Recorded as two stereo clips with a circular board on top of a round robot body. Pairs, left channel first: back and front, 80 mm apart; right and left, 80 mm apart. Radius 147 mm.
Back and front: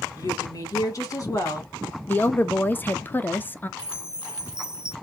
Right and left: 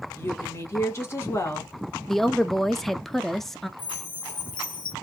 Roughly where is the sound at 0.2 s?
Behind right.